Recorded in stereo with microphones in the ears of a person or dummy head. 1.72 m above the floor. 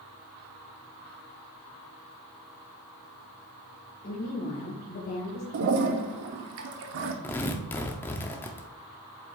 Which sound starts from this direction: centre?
Tearing paper, at 7.2 s.